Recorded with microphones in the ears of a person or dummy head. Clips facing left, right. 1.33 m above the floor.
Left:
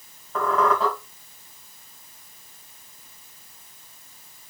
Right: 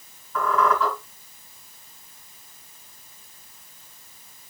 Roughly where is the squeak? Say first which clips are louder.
Even; left.